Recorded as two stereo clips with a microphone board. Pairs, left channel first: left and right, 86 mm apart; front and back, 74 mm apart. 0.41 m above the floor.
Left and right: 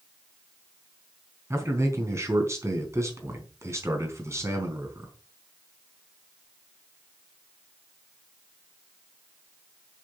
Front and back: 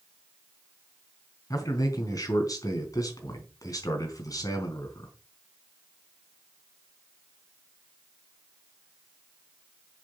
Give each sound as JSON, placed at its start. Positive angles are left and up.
{"t": 1.5, "sound": "a man speaking", "azimuth_deg": -35, "distance_m": 4.0}